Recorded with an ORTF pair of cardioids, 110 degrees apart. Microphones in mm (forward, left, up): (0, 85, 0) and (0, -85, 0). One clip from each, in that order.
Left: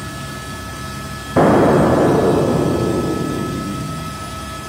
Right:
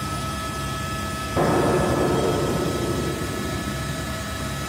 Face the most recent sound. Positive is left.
turn(degrees=45)